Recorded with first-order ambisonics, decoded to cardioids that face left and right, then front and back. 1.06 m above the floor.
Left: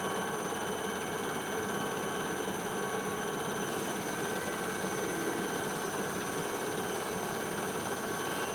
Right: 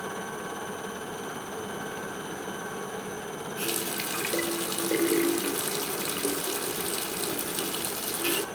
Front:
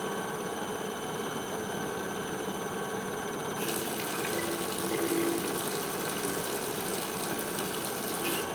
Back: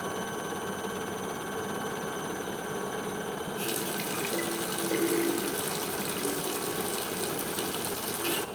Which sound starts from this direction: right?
A running tap, at 3.6 s.